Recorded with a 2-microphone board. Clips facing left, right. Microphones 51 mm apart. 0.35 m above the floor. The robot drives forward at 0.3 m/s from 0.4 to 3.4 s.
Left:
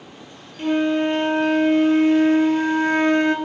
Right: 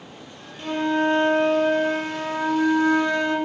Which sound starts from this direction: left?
A flute, at 0.6 s.